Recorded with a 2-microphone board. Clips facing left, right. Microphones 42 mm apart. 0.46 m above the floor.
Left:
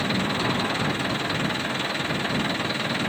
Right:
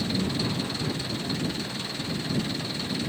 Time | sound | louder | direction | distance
0.0 | an engine running | left 4 dB | 45° left (ahead or behind) | ?